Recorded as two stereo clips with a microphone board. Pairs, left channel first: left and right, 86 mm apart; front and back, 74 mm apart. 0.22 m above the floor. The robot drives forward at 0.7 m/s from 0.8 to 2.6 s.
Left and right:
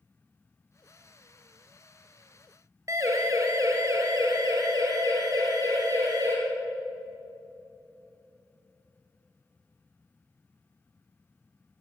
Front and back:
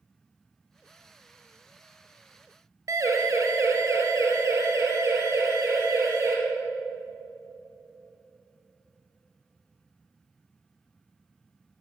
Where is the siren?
140° right, 3.5 m; by 6.3 s 135° right, 6 m.